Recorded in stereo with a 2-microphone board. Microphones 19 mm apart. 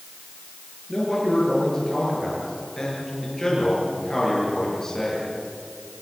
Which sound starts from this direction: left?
A man speaking, at 0.9 s.